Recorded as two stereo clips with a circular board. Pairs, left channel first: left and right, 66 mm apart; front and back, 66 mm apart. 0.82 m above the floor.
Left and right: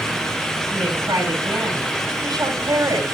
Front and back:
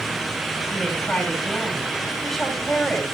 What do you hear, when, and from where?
0.7 s a woman speaking: 85° right, 8.5 m